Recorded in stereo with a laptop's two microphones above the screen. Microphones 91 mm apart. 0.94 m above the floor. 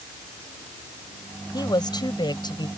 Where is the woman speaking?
50° left (ahead or behind).